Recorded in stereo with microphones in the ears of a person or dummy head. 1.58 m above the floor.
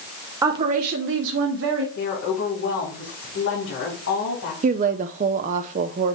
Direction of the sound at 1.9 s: 85° left.